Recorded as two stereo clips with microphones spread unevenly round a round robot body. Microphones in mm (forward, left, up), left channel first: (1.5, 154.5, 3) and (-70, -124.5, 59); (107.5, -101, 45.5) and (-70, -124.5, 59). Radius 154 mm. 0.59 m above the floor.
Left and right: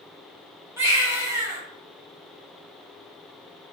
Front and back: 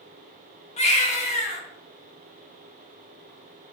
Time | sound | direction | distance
0.8 | a baby crying | 15° right | 0.8 m